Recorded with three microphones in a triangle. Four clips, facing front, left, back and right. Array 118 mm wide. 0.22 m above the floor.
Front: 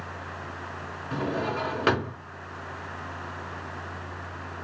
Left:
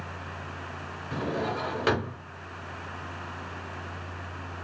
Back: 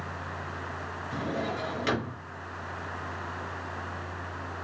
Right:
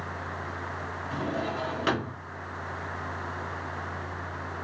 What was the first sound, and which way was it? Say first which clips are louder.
A drawer: left 2 dB, front 4 dB; 5° left.